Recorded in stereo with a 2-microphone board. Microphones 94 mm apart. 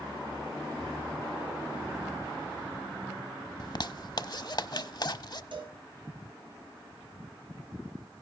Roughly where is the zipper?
Left.